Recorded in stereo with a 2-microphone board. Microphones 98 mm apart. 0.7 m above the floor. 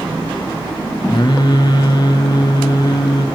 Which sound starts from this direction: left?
Singing, at 1.1 s.